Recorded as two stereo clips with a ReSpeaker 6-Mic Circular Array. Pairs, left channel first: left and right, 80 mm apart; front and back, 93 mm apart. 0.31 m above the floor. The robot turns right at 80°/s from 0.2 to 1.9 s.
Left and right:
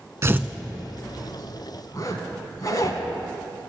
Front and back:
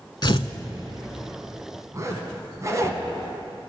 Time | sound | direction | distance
0.2 | tearing paper | 35° right | 0.6 m
1.9 | a zipper | 130° left | 1.1 m